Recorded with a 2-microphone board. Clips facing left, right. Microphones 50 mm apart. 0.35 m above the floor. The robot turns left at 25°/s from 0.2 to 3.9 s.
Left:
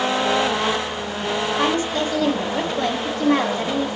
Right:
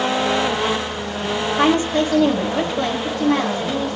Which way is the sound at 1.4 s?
140° right.